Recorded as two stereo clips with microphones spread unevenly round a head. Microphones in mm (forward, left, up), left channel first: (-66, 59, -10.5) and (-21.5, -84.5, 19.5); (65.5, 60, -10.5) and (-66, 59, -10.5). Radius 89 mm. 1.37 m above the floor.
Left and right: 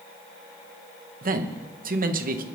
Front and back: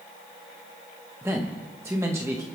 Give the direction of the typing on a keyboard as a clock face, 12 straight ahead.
No typing on a keyboard in this recording.